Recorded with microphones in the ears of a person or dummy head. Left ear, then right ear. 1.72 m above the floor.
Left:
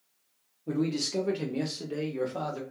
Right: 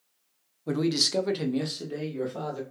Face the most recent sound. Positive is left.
turn(degrees=20)  # may be behind; listen again after turning